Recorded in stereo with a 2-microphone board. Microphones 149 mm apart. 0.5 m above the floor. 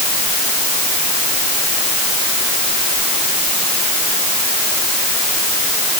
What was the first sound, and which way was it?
Only background noise.